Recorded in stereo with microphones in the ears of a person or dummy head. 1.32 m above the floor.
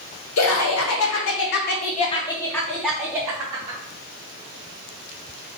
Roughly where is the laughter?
Left.